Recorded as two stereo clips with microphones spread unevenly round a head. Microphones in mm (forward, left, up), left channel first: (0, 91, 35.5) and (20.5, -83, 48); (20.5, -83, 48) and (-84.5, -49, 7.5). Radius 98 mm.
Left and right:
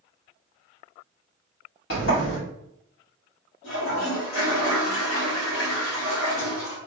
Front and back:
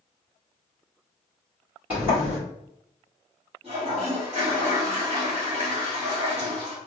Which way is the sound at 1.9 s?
70° left.